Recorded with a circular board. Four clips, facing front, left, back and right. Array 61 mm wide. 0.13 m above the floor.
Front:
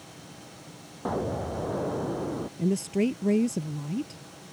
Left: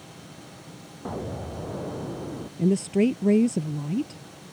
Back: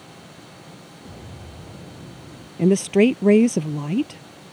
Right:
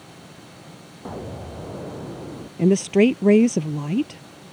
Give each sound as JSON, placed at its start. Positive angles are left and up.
{"t": 1.1, "sound": "an explosion", "azimuth_deg": 0}
{"t": 2.6, "sound": "a woman speaking", "azimuth_deg": -140}